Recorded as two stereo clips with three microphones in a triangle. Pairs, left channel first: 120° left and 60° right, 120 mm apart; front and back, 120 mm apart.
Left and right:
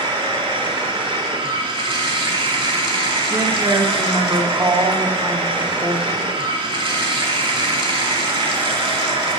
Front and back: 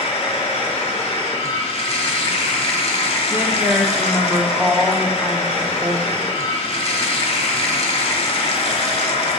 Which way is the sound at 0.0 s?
25° right.